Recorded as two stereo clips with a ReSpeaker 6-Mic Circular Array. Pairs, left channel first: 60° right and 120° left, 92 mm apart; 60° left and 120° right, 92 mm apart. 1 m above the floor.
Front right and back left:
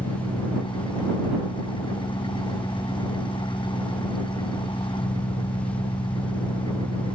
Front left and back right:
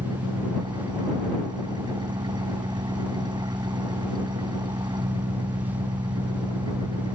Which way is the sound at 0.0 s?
85° right.